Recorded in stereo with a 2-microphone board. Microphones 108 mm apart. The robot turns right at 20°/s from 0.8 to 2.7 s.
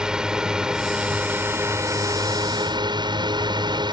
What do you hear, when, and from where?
0.0 s a drone: 175° right; by 3.9 s 135° right